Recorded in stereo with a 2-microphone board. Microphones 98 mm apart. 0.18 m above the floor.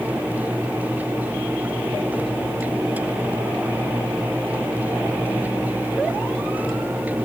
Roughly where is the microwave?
I don't hear a microwave.